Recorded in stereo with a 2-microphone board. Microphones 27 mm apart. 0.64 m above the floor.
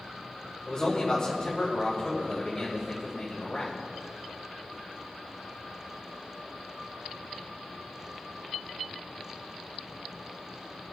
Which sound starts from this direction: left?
A man speaking, at 0.7 s.